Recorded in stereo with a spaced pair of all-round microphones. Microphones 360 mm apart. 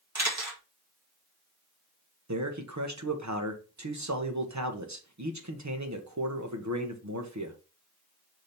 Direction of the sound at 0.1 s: 45° right (ahead or behind).